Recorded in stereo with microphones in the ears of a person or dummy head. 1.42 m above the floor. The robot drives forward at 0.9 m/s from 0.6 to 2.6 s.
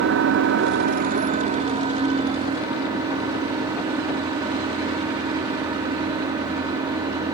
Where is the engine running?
65° right (ahead or behind), 1.1 m; by 7.3 s 25° right (ahead or behind), 2.5 m.